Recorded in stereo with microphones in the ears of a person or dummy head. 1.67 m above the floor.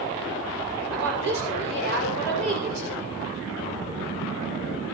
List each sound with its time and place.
0.9 s a woman speaking: 70° right (ahead or behind), 6 m